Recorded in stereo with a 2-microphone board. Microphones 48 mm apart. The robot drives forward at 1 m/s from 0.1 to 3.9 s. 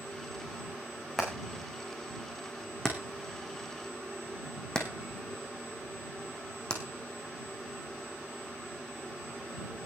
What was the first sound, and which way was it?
Hammering, 10° left (ahead or behind).